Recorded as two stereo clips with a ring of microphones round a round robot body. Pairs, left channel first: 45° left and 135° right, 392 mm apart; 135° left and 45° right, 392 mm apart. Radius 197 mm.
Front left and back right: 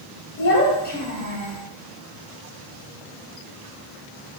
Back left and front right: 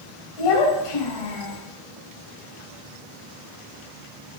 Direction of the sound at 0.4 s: 105° left.